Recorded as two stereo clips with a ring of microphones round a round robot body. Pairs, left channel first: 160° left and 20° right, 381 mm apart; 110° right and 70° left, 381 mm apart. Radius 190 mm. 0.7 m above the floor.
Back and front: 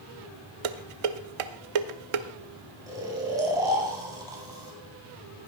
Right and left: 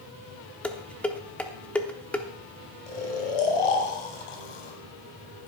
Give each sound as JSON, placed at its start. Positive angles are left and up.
{"t": 0.6, "sound": "dishes clattering", "azimuth_deg": -25, "distance_m": 0.9}
{"t": 2.9, "sound": "snoring", "azimuth_deg": -105, "distance_m": 3.0}